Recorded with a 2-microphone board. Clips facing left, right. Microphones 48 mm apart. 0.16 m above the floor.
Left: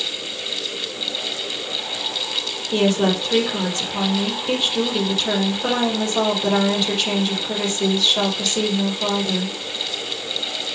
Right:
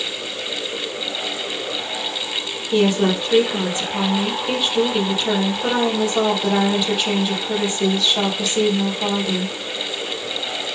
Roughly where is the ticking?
I don't hear ticking.